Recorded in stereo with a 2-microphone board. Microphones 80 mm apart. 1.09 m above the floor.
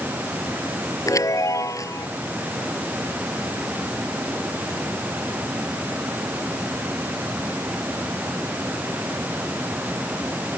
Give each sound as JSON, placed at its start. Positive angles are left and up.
{"t": 1.1, "sound": "a chime", "side_deg": 40}